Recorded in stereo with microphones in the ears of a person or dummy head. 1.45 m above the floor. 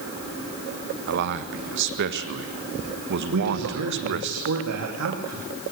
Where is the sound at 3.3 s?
85° right, 3 m.